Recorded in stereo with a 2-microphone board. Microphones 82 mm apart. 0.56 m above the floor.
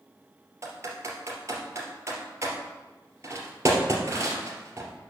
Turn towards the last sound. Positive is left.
turn(degrees=-40)  # may be behind; listen again after turning